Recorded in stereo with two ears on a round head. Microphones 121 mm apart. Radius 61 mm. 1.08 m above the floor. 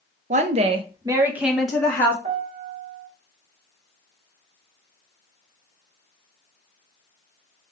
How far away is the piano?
About 1.4 m.